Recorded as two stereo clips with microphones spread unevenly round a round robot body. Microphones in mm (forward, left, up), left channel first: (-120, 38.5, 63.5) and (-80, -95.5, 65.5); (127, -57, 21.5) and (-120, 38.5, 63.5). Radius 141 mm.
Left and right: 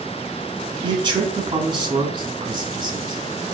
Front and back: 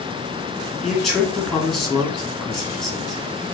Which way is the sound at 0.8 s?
95° right.